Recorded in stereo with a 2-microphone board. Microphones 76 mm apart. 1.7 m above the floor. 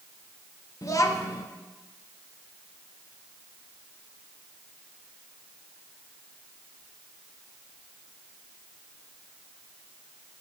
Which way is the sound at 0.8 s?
45° left (ahead or behind).